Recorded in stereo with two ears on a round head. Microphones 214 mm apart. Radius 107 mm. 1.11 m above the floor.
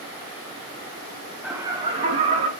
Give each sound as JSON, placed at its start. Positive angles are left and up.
{"t": 1.4, "sound": "laughter", "side_deg": -5, "distance_m": 0.9}